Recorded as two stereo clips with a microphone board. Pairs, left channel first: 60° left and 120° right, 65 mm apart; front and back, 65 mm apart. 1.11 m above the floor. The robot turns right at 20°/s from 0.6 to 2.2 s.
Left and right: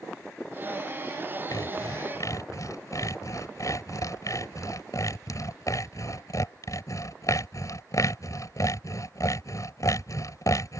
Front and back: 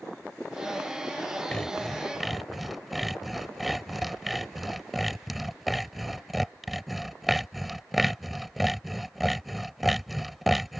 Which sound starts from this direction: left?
Sawing, at 1.5 s.